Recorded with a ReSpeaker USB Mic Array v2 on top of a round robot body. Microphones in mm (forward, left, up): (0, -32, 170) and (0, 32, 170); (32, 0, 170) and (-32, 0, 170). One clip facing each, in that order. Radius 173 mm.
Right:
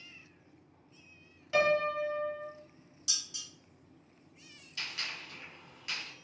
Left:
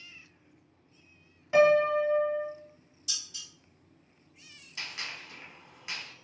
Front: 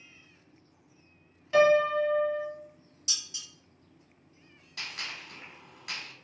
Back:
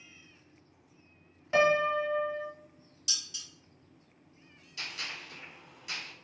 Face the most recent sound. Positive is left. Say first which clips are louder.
# left 1 dB, front 1 dB
turn(degrees=25)